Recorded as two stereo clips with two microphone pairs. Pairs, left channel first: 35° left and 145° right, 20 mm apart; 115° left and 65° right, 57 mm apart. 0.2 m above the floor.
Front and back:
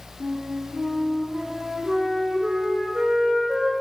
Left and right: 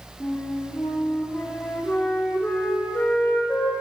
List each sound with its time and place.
0.2 s a flute: straight behind, 6.5 m